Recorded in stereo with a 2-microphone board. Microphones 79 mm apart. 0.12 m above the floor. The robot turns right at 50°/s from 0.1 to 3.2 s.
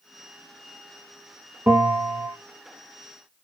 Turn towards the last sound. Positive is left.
turn(degrees=40)